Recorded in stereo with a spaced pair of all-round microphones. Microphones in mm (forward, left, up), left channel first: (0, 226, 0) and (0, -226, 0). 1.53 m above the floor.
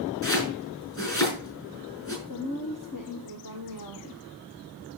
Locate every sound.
0.2 s chopping: 40° left (ahead or behind), 6 m
2.3 s a woman speaking: 45° left (ahead or behind), 1.2 m